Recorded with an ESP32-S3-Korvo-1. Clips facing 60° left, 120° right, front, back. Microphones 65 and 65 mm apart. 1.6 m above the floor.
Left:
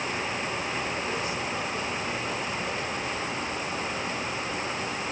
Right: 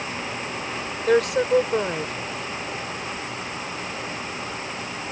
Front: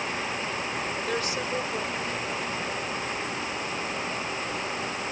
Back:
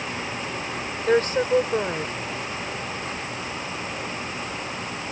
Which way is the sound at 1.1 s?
135° right.